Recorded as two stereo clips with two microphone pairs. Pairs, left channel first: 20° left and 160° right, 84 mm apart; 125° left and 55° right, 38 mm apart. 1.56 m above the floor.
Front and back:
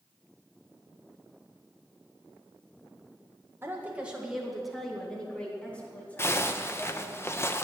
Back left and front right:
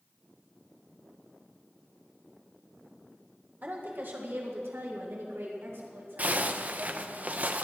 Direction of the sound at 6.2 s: 30° right.